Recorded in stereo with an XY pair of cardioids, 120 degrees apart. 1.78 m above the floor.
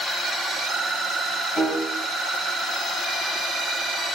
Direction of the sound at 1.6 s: 45° left.